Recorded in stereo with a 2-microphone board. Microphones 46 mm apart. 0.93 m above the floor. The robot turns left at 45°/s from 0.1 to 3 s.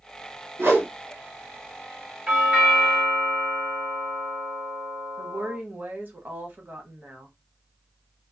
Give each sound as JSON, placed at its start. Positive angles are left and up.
{"t": 0.6, "sound": "a whoosh", "side_deg": -55, "distance_m": 1.1}
{"t": 2.3, "sound": "a doorbell", "azimuth_deg": -50, "distance_m": 0.9}
{"t": 5.2, "sound": "a woman speaking", "side_deg": -45, "distance_m": 1.0}